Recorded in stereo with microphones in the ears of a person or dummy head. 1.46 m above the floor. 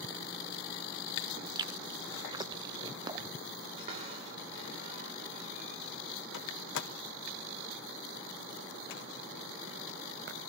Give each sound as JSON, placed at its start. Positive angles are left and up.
{"t": 1.6, "sound": "chewing", "side_deg": -25, "distance_m": 0.5}
{"t": 3.8, "sound": "a cupboard door", "side_deg": -45, "distance_m": 3.5}
{"t": 6.3, "sound": "a door slam", "side_deg": 65, "distance_m": 1.3}